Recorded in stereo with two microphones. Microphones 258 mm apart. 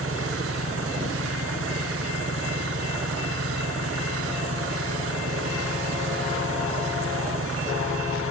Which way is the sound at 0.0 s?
60° right (ahead or behind).